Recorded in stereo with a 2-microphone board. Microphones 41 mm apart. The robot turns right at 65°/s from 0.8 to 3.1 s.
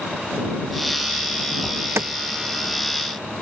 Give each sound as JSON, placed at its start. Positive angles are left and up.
{"t": 1.6, "sound": "an alarm", "side_deg": -65}